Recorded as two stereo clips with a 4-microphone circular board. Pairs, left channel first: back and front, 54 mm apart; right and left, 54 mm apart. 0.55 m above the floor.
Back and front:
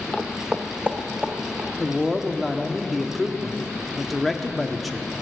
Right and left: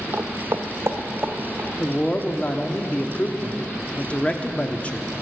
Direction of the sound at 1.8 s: 85° right.